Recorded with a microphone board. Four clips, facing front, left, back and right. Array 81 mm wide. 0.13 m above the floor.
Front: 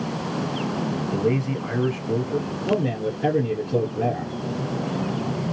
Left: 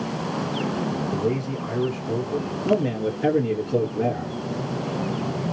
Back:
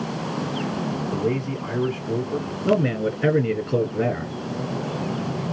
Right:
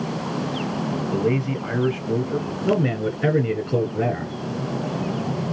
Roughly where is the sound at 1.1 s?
Right.